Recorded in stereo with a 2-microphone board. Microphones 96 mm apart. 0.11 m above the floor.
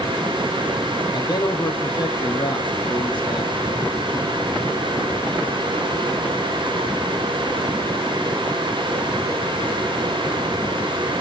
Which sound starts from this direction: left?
A man speaking, at 1.1 s.